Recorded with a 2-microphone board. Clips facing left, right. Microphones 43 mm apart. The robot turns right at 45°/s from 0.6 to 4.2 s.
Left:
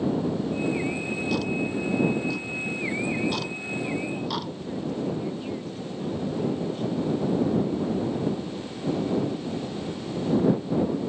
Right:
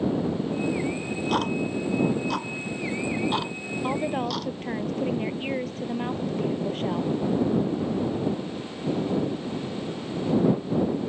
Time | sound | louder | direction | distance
0.9 | ticking | right 1 dB | 35° right (ahead or behind) | ?
3.8 | a woman speaking | right 5 dB | 55° right (ahead or behind) | ?